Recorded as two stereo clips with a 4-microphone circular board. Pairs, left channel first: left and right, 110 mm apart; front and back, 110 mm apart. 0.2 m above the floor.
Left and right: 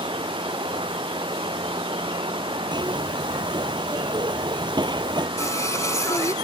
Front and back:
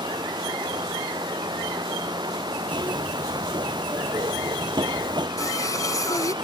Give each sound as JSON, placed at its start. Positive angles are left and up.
{"t": 0.0, "sound": "running water", "azimuth_deg": -130}
{"t": 2.7, "sound": "a zipper", "azimuth_deg": -135}
{"t": 5.4, "sound": "singing", "azimuth_deg": 40}